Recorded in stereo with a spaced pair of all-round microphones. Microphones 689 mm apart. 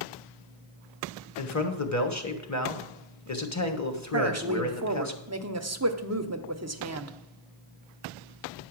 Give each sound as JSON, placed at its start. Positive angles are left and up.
{"t": 1.4, "sound": "a man speaking", "side_deg": 25, "distance_m": 1.2}
{"t": 4.1, "sound": "a woman speaking", "side_deg": -25, "distance_m": 0.7}